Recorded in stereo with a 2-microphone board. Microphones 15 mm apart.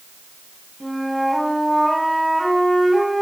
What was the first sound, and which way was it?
A flute, centre (ahead or behind).